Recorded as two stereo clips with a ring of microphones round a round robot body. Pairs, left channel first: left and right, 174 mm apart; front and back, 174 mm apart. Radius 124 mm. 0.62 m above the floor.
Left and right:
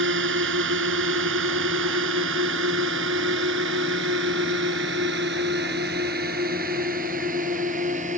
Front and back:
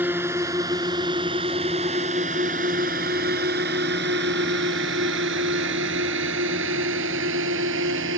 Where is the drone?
100° right; by 8.2 s 155° right.